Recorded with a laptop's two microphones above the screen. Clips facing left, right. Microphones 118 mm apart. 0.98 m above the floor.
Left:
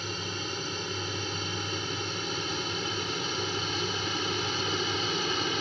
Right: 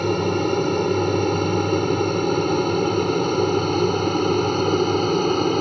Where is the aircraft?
60° right (ahead or behind); by 5.6 s 45° right (ahead or behind).